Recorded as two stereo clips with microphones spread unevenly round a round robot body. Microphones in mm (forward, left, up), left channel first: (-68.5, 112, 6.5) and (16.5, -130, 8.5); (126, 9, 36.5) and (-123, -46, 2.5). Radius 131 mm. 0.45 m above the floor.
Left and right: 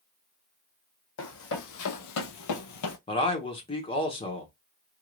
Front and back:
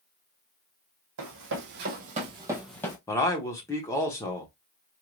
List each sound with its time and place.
1.2 s running footsteps: 150° left, 1.4 m; by 3.0 s 80° left, 0.8 m
3.1 s a man speaking: 95° left, 1.0 m